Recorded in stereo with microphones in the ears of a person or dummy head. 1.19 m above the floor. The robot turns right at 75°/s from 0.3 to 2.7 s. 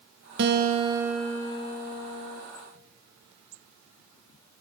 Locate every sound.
0.4 s a guitar: 60° right, 3 m; by 2.4 s 95° left, 3 m